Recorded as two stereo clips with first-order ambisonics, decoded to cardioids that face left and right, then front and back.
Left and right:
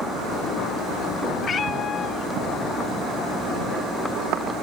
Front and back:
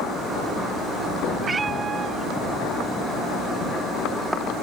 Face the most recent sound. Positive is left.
turn(degrees=125)